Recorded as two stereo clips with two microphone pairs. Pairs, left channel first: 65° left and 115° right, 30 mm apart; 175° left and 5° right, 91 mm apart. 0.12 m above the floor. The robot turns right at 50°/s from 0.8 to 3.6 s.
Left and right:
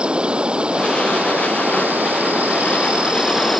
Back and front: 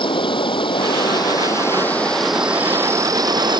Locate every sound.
0.0 s an insect: 170° right; by 3.6 s 30° right